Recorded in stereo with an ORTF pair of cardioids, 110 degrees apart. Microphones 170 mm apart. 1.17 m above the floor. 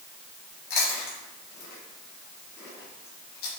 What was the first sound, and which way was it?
Chewing, 70° left.